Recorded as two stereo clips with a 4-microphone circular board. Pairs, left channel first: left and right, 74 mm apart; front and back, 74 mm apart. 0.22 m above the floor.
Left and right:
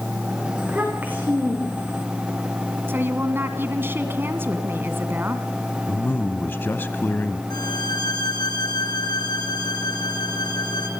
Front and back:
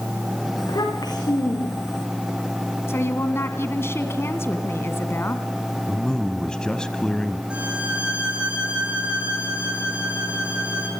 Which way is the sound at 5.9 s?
70° left.